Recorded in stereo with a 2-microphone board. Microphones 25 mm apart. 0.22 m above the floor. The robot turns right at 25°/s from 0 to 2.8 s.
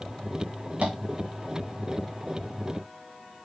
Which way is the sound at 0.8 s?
70° right (ahead or behind).